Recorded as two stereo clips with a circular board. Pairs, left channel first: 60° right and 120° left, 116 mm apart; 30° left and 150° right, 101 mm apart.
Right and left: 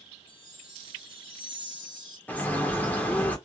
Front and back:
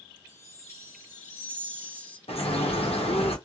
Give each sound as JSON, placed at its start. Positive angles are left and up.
{"t": 0.3, "sound": "a chime", "azimuth_deg": -25, "distance_m": 1.7}
{"t": 2.3, "sound": "a bird", "azimuth_deg": 15, "distance_m": 0.7}